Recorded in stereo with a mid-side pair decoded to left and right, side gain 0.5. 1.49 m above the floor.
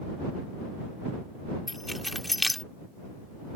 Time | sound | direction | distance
1.7 | keys jangling | 10° left | ?